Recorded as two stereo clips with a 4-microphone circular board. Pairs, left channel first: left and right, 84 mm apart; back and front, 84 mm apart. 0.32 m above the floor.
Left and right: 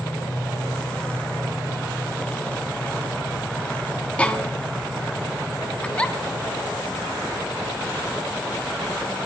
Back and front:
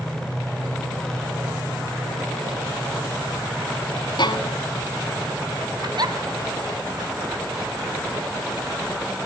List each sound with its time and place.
4.2 s a violin: 165° left, 2.0 m
5.8 s a giggle: 15° left, 2.5 m